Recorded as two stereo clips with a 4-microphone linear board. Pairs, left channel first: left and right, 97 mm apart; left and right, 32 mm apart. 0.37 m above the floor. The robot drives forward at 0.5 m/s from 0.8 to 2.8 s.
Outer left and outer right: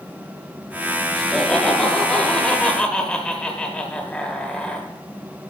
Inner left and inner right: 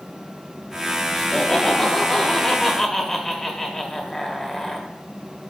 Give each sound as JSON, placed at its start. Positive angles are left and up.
{"t": 1.1, "sound": "laughter", "side_deg": 5, "distance_m": 1.8}